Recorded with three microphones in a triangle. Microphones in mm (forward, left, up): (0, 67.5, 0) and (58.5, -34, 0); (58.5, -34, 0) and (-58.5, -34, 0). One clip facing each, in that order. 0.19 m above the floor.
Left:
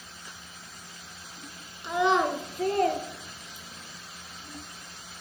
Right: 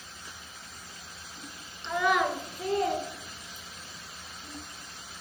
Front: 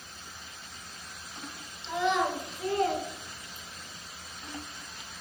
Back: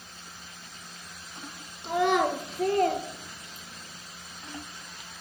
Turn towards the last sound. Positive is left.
turn(degrees=130)